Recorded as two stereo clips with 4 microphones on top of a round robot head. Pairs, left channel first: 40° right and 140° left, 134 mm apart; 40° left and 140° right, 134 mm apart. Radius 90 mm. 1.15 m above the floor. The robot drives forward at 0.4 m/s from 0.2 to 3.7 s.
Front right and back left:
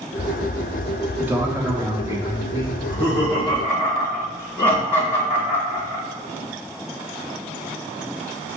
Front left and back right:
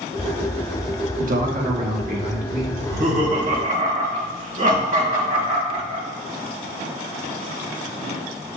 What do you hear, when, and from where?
1.2 s a man speaking: 145° right, 0.9 m; by 2.7 s 160° right, 1.4 m
2.8 s laughter: 140° right, 1.2 m; by 6.0 s 150° right, 1.5 m